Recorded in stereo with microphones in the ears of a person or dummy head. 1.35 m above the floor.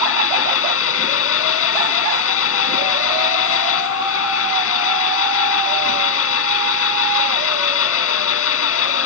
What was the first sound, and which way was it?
An engine running, 80° left.